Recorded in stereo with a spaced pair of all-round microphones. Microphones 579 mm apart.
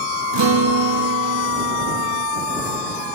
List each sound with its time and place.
0.3 s a guitar: 45° right (ahead or behind)